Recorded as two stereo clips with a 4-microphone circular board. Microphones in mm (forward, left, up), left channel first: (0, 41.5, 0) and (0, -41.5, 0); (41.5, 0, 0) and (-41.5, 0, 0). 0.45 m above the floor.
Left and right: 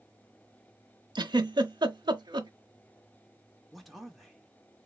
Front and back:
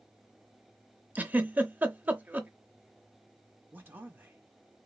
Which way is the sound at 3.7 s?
Straight behind.